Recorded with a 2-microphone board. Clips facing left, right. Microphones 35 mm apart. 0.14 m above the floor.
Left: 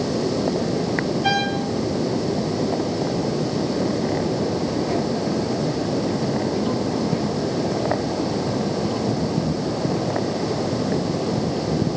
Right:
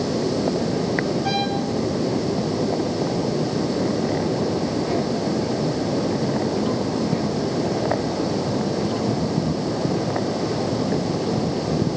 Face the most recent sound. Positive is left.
turn(degrees=85)